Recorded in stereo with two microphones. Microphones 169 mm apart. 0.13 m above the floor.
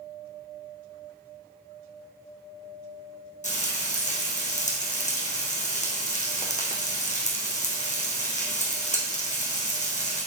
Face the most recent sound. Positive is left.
turn(degrees=45)  # may be behind; listen again after turning